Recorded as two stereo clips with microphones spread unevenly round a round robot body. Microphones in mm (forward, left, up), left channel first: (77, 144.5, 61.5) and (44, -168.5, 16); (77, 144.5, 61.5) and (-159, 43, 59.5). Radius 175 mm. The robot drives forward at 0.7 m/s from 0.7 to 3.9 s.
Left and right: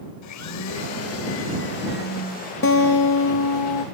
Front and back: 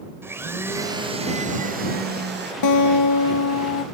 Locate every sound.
0.2 s a blender: 125° left, 1.3 m; by 2.5 s 155° left, 2 m
2.6 s a guitar: 30° left, 1.3 m; by 3.9 s 70° left, 0.7 m